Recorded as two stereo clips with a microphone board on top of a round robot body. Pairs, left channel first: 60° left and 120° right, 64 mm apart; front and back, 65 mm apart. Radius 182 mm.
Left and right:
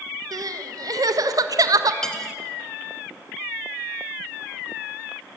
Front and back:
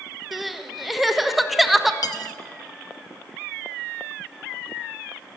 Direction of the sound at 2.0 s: 25° right.